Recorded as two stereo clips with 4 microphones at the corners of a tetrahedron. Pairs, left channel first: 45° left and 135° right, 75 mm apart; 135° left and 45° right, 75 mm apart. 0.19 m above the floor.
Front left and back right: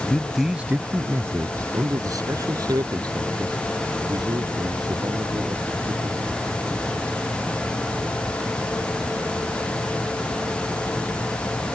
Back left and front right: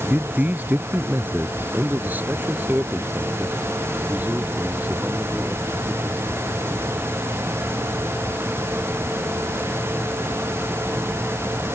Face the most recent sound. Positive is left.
turn(degrees=-115)